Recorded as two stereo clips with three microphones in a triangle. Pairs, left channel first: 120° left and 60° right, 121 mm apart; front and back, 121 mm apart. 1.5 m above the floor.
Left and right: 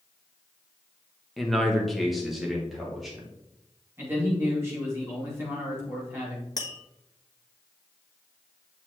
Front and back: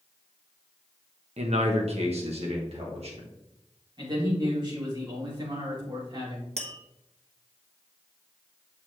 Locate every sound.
1.4 s a man speaking: 150° right, 1.4 m; by 3.3 s 145° right, 3 m
4.0 s a man speaking: 130° right, 4.5 m
6.6 s tapping: 175° left, 1.2 m